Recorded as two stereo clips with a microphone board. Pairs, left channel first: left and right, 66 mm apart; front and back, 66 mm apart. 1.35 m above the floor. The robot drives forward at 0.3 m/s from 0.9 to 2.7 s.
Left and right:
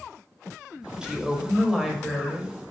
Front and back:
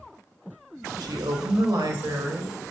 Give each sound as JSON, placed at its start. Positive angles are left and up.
{"t": 1.0, "sound": "a woman speaking", "azimuth_deg": -165, "distance_m": 0.8}